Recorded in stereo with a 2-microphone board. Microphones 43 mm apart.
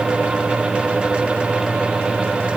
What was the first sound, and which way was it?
Only background noise.